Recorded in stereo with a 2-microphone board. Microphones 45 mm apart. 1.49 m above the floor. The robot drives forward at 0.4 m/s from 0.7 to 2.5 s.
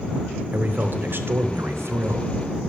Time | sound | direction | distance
0.5 | a man speaking | 45° right (ahead or behind) | 0.9 m